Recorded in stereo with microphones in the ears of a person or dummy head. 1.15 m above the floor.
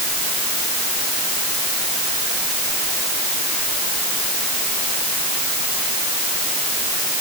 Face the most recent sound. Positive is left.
No sound to turn to.